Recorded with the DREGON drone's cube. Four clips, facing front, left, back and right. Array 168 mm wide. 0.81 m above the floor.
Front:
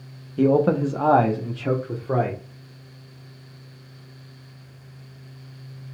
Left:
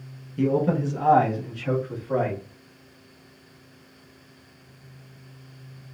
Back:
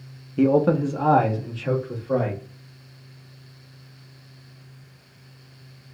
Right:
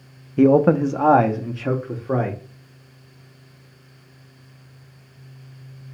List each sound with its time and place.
0.4 s a man speaking: 100° right, 0.5 m; by 2.4 s 55° right, 1.9 m